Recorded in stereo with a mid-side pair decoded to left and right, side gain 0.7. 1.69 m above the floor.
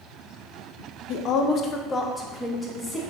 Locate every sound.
1.1 s a woman speaking: 60° left, 0.5 m; by 3.0 s 5° left, 1.2 m